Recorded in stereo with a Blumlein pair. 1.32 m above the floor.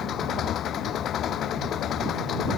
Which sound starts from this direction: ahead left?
An engine running, at 0.0 s.